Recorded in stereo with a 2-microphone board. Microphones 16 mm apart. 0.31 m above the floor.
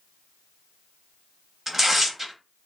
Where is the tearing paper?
20° right (ahead or behind), 1.1 m.